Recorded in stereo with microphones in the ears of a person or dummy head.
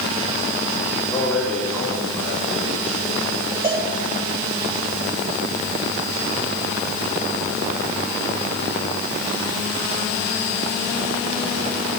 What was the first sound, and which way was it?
A man speaking, 5° left (ahead or behind).